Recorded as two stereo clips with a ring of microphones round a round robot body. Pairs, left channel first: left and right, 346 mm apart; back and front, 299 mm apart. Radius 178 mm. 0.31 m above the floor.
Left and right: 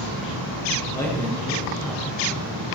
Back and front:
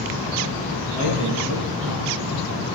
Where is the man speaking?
10° left, 5 m.